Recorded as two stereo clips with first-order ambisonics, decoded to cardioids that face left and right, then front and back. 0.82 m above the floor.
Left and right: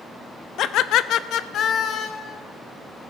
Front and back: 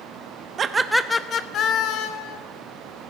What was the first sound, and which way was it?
Laughter, 125° left.